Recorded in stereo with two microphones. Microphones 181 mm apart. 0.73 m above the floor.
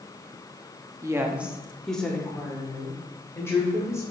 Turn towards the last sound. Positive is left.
turn(degrees=15)  # may be behind; listen again after turning